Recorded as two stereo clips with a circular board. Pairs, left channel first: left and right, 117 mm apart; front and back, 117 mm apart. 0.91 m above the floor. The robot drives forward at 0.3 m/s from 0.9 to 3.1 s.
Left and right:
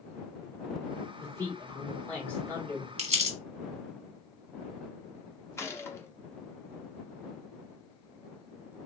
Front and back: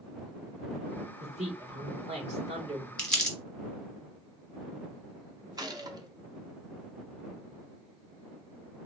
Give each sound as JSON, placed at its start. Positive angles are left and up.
{"t": 1.2, "sound": "a man speaking", "azimuth_deg": 160, "distance_m": 1.7}
{"t": 3.0, "sound": "crumpling", "azimuth_deg": -80, "distance_m": 1.0}
{"t": 5.6, "sound": "a gunshot", "azimuth_deg": 145, "distance_m": 0.5}